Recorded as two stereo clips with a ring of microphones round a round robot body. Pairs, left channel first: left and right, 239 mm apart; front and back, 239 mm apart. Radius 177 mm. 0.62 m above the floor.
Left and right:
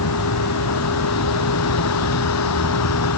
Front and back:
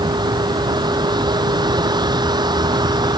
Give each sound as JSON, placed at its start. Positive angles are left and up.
{"t": 0.0, "sound": "a vehicle", "azimuth_deg": 110}